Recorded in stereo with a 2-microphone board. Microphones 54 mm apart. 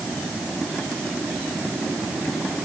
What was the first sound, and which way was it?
Only background noise.